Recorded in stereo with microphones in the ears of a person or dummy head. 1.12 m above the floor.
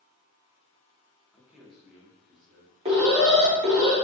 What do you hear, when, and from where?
1.3 s a man speaking: 5° left (ahead or behind), 0.8 m
2.9 s an alarm: 20° right (ahead or behind), 0.8 m